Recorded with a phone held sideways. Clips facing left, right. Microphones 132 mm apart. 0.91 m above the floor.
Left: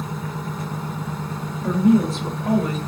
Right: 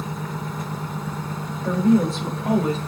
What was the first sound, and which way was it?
A woman speaking, 15° left (ahead or behind).